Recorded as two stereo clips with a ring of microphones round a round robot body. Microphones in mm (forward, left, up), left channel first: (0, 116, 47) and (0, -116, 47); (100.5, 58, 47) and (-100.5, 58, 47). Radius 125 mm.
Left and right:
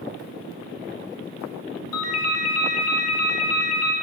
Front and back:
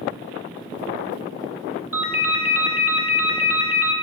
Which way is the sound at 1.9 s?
100° left.